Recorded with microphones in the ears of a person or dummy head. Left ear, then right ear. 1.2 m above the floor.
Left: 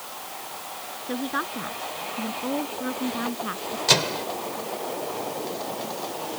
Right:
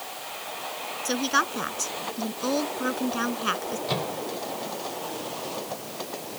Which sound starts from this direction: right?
A woman speaking, at 1.1 s.